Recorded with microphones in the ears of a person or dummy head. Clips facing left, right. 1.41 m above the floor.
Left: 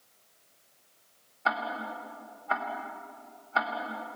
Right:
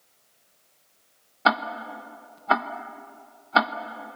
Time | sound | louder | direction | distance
1.4 | ticking | right 7 dB | 75° right (ahead or behind) | 1.1 m